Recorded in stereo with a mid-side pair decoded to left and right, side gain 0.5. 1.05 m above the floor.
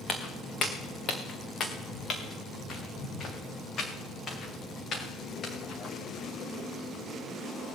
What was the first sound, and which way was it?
Footsteps, 40° left.